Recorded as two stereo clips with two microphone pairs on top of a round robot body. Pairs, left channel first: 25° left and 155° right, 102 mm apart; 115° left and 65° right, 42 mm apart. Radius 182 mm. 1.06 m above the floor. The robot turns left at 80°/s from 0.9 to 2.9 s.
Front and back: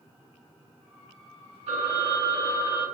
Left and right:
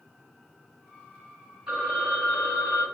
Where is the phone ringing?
145° right, 1.1 m; by 2.9 s 120° left, 1.1 m.